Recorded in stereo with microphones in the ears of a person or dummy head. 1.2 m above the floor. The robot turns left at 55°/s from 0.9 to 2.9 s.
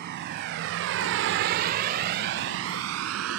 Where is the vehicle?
55° right (ahead or behind); by 3.4 s 80° right.